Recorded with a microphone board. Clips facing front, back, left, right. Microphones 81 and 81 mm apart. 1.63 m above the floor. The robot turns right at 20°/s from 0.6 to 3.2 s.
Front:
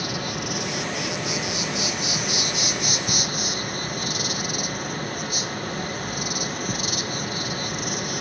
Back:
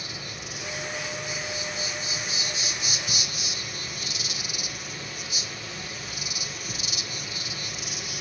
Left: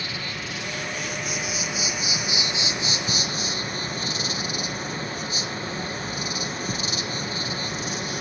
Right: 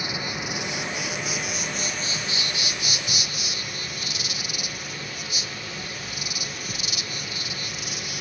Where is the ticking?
50° left, 1.7 m; by 3.1 s 55° left, 1.7 m.